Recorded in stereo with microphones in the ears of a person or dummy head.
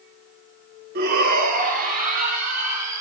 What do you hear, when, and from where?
0.9 s a shout: 50° right (ahead or behind), 0.7 m; by 3.0 s 45° right (ahead or behind), 3 m